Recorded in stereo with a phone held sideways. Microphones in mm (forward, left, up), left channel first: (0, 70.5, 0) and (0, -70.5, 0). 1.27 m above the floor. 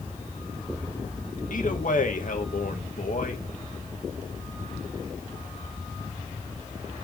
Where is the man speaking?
70° left (ahead or behind), 1.7 m.